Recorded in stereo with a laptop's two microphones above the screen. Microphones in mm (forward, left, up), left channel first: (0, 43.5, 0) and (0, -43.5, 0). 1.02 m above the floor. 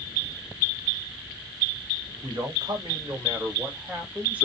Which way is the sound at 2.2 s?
55° right (ahead or behind).